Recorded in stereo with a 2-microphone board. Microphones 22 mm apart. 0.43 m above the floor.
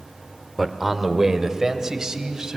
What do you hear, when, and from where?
0.6 s a man speaking: 5° right (ahead or behind), 1.3 m; by 2.6 s 30° right (ahead or behind), 3 m